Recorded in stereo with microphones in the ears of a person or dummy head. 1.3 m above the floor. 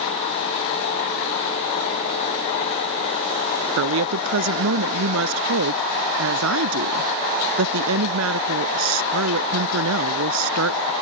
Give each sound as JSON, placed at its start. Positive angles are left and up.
{"t": 3.8, "sound": "a woman speaking", "side_deg": -75}